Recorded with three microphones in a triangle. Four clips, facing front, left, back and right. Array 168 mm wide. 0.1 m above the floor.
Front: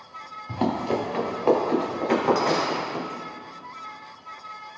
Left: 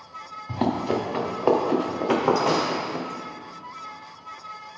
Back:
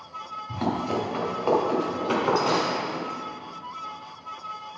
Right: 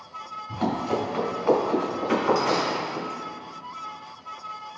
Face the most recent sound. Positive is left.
turn(degrees=80)